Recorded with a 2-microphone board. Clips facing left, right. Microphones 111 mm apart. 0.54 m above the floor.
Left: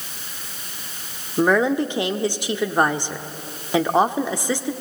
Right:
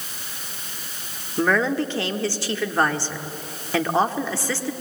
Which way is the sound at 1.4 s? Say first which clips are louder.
Left 3 dB; 20° left (ahead or behind).